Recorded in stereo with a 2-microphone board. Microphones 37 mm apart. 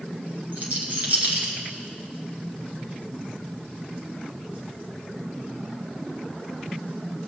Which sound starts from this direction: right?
A rattle, at 0.5 s.